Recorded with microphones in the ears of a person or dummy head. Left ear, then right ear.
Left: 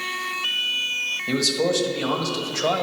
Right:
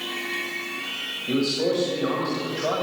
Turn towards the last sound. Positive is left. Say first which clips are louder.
# left 1 dB
turn(degrees=85)